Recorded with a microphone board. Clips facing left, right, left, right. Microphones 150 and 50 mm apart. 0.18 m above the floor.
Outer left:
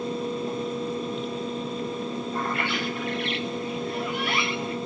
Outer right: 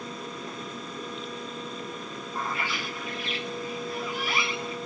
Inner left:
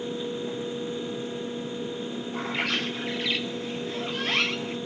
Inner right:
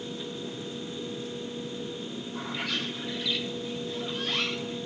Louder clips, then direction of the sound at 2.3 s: Outer left 2 dB, inner left 5 dB; 65° left (ahead or behind).